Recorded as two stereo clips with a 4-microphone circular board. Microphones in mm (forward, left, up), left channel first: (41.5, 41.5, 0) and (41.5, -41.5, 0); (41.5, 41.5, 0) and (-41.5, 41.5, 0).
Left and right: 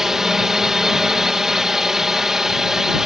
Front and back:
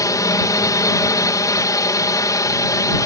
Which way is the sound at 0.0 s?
10° right.